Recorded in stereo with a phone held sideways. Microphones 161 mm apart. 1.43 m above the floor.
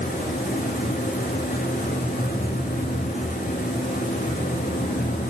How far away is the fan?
About 5.5 m.